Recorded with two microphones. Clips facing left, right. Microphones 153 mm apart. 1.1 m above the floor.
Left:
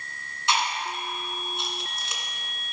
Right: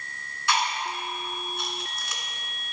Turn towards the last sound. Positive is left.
turn(degrees=20)  # may be behind; listen again after turning